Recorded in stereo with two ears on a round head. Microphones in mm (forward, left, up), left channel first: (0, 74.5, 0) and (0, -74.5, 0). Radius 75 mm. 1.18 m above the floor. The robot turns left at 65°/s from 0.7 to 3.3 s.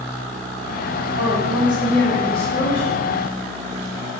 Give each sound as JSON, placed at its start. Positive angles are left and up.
{"t": 1.2, "sound": "a woman speaking", "azimuth_deg": -150, "distance_m": 2.5}